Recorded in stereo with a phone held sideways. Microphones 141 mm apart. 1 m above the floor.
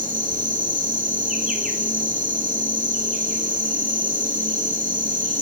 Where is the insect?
65° right (ahead or behind), 3.5 m.